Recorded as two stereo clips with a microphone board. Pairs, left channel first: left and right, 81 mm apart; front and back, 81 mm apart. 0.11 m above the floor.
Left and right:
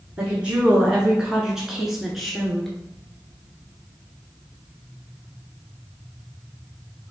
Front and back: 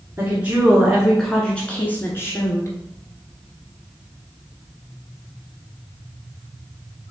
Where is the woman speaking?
150° right, 1.3 m; by 2.7 s 5° left, 1.4 m.